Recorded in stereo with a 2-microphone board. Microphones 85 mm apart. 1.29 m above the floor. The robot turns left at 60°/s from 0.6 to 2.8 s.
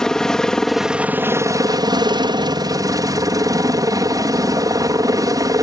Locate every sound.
0.0 s a helicopter: 10° left; by 5.6 s 125° right